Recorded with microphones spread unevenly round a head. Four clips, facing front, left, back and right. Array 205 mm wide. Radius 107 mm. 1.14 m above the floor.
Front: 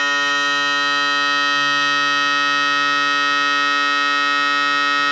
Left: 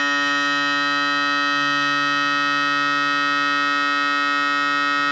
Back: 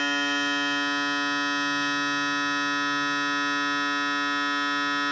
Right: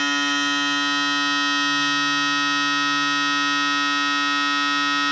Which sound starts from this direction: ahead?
A machine running, at 0.0 s.